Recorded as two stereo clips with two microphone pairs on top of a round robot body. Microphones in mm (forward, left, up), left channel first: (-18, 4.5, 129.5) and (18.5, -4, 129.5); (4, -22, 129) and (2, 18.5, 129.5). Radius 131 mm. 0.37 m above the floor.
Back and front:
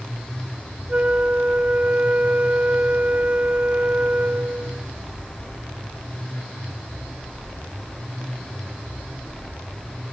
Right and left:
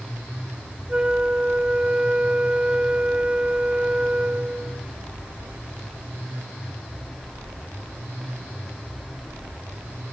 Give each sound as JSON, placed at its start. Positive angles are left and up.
{"t": 0.9, "sound": "a flute", "azimuth_deg": 30, "distance_m": 0.6}